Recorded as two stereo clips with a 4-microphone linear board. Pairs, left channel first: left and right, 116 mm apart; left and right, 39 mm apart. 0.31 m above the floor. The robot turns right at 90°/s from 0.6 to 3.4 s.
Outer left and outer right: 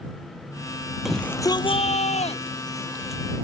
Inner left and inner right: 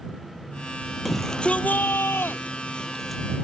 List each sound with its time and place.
1.1 s a shout: 5° right; by 3.2 s 170° right